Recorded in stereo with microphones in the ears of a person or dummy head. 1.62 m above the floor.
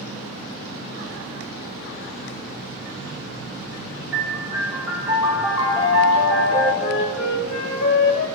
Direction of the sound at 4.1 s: 15° right (ahead or behind).